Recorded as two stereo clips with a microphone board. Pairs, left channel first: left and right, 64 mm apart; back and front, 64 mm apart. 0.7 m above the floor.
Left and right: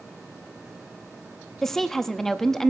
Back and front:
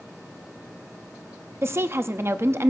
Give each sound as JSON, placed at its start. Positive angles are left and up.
{"t": 1.6, "sound": "a woman speaking", "azimuth_deg": 10, "distance_m": 0.7}